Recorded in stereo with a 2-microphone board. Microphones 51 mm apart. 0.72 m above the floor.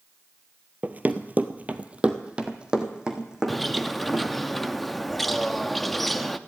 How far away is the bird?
About 0.5 m.